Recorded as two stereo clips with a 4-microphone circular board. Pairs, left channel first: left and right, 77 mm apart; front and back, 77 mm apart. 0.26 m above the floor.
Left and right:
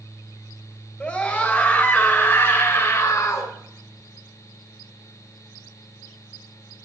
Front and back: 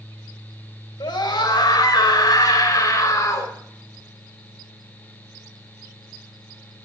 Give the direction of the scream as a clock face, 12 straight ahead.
12 o'clock.